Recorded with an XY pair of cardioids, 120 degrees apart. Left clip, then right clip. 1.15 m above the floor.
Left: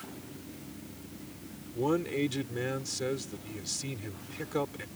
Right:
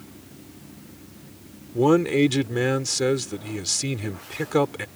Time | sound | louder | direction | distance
1.7 | a man speaking | right 11 dB | 55° right | ?